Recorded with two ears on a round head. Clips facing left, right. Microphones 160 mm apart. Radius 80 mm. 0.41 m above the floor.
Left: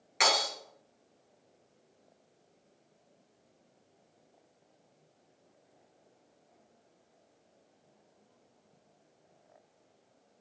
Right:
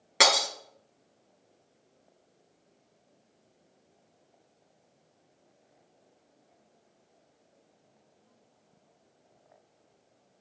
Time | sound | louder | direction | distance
0.2 | breaking glass | right 4 dB | 70° right (ahead or behind) | 1.5 m